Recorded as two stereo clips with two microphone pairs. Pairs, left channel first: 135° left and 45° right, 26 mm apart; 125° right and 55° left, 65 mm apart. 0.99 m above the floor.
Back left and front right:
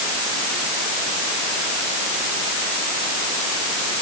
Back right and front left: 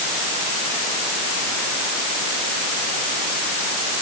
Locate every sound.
Only background noise.